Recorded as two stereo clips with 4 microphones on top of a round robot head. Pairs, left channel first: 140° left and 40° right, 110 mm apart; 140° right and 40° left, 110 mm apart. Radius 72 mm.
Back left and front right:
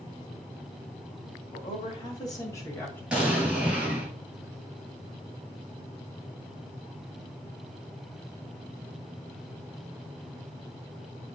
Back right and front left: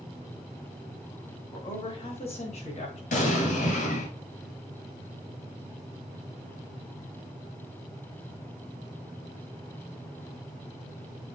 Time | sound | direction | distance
1.5 | a woman speaking | 175° left | 3 m
3.1 | an explosion | 125° right | 2.5 m